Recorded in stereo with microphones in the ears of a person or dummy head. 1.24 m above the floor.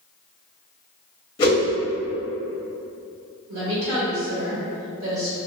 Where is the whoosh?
25° left (ahead or behind), 0.8 m.